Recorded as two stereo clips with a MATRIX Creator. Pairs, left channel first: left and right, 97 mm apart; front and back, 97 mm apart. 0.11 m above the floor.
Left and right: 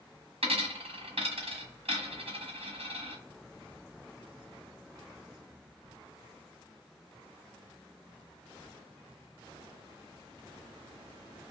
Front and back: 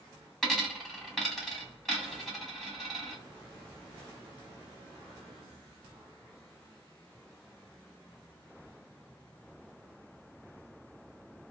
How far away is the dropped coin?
About 1.1 m.